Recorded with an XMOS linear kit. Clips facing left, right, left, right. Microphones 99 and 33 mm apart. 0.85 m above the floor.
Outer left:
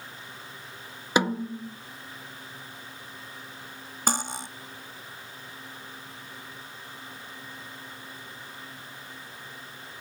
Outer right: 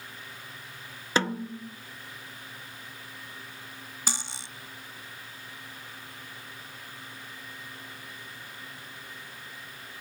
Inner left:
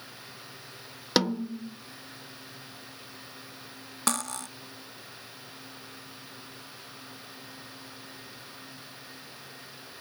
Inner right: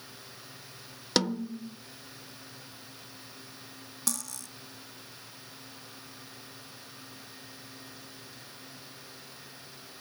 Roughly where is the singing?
I don't hear singing.